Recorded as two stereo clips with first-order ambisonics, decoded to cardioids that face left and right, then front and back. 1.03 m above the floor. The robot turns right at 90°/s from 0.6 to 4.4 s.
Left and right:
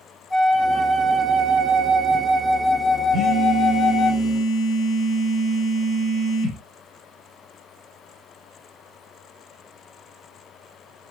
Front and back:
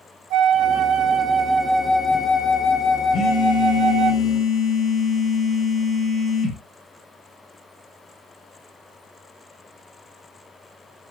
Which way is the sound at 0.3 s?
155° left.